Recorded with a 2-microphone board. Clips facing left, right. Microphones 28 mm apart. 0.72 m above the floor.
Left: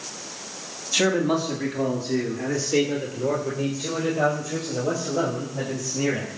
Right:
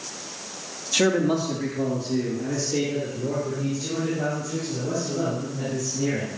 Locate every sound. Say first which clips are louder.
0.9 s a man speaking: even; 5° left (ahead or behind), 1.4 m; by 6.4 s 80° left, 6.5 m